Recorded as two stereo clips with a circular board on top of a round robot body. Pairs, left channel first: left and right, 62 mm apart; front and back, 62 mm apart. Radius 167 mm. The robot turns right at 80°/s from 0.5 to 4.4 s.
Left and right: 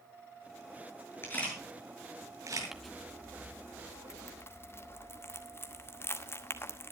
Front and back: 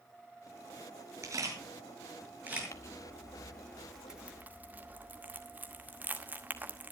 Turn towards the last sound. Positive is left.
turn(degrees=125)